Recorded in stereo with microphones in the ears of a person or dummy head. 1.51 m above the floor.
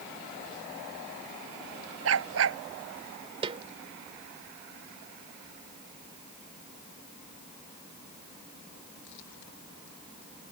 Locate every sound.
2.0 s a dog barking: 80° right
3.4 s a snare drum: 30° right (ahead or behind)